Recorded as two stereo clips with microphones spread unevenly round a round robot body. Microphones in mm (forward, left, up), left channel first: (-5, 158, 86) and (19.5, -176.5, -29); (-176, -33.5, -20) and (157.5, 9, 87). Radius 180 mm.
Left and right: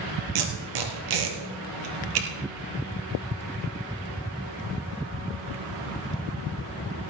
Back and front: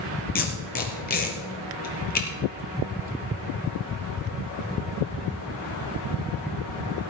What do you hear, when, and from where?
0.3 s tape being pulled: 110° right, 2.5 m